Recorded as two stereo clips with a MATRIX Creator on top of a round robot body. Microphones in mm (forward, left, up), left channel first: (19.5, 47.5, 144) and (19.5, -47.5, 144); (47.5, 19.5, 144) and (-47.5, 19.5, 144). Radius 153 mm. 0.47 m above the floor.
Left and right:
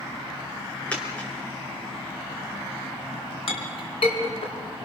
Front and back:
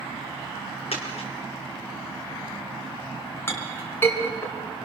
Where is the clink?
65° left, 4 m.